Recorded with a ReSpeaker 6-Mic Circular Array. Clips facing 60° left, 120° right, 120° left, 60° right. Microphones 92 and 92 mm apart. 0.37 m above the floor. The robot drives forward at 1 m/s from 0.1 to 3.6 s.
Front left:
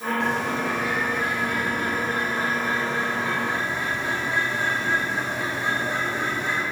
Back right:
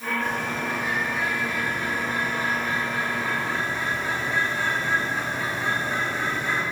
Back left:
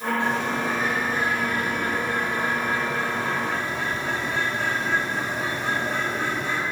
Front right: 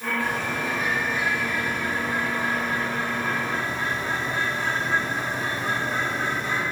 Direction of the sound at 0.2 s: 55° left.